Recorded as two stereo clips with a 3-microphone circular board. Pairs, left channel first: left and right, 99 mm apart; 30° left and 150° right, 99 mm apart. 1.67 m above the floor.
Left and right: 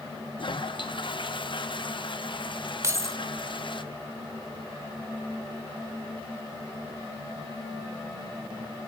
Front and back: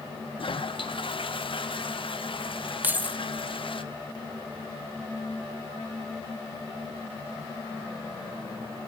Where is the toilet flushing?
55° left, 0.9 m.